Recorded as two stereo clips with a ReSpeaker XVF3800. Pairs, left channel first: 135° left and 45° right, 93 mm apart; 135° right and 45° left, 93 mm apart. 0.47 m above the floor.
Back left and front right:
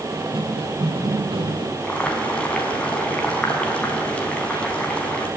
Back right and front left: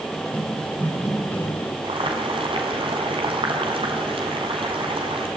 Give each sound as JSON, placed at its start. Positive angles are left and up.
{"t": 0.1, "sound": "running footsteps", "azimuth_deg": -50, "distance_m": 4.0}
{"t": 1.8, "sound": "boiling", "azimuth_deg": 60, "distance_m": 5.0}